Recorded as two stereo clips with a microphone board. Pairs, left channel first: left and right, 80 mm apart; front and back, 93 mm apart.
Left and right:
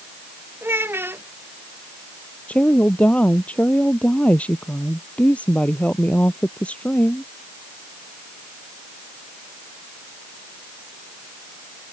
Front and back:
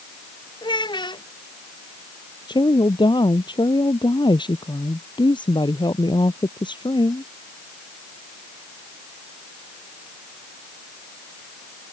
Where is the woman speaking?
20° left.